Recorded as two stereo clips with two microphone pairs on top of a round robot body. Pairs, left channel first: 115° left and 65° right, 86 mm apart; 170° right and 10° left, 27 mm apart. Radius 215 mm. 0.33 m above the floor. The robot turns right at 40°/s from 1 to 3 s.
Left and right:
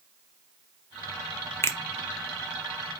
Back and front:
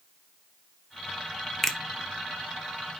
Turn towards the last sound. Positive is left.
turn(degrees=-160)